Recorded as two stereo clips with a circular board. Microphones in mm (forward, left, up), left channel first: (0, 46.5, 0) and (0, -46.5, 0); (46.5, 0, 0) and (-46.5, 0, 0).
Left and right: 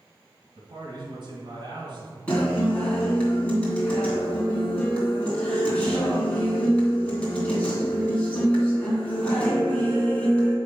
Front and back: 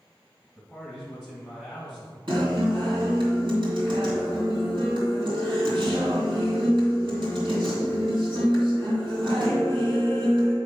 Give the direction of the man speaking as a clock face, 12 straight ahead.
3 o'clock.